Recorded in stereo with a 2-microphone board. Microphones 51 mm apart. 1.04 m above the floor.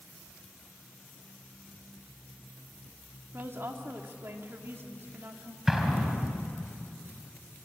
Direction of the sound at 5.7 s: 10° right (ahead or behind).